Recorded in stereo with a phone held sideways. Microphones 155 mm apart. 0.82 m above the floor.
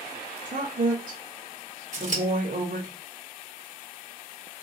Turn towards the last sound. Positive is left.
turn(degrees=-50)  # may be behind; listen again after turning